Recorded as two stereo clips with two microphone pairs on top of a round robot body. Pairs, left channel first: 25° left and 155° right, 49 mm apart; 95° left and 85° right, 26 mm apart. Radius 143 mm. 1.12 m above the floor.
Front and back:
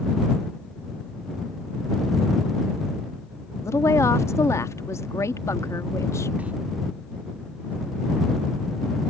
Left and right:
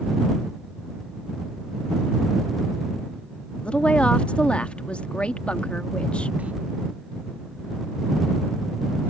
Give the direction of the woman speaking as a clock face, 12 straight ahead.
10 o'clock.